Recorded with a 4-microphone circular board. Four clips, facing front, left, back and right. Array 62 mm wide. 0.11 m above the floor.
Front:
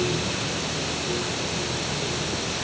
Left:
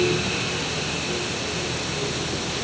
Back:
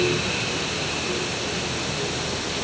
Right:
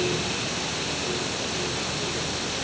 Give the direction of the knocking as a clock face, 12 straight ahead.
No knocking in this recording.